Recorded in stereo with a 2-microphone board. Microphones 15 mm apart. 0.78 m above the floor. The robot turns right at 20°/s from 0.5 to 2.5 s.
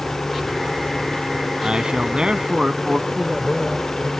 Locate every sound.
0.0 s a helicopter: 50° left (ahead or behind); by 4.2 s 60° left (ahead or behind)
1.6 s a man speaking: 80° right; by 3.0 s 75° right (ahead or behind)
3.1 s a man speaking: 40° right (ahead or behind)